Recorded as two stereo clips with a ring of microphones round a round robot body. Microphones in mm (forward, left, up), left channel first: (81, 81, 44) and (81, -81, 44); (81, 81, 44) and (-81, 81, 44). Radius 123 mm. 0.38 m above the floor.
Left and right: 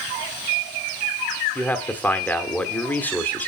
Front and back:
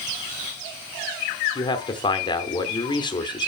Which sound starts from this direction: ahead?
A man speaking, at 1.6 s.